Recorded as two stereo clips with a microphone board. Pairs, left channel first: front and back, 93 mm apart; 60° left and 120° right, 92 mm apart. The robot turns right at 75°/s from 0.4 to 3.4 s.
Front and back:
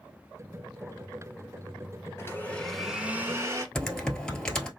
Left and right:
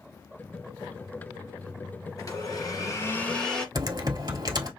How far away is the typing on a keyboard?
About 1.0 m.